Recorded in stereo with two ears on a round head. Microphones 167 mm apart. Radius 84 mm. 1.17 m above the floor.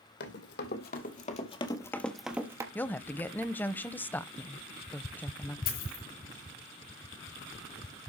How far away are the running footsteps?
About 2.5 m.